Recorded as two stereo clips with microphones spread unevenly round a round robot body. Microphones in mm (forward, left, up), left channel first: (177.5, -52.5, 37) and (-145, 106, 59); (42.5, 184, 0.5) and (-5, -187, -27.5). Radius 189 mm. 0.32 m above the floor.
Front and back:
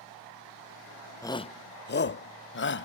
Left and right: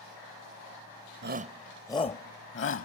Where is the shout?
95° right; by 2.9 s 25° left.